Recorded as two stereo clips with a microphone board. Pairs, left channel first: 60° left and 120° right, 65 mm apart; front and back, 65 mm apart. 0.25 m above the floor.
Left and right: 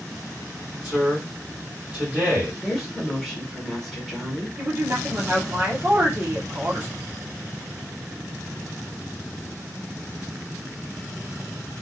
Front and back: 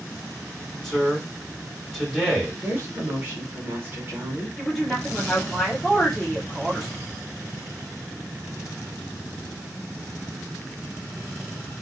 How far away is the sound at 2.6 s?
About 1.1 m.